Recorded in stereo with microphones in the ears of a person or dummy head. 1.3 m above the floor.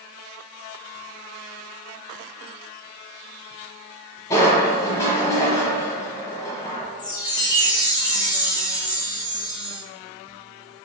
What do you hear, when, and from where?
4.3 s crushing: 20° left (ahead or behind), 1.2 m
7.0 s a chime: 20° left (ahead or behind), 0.6 m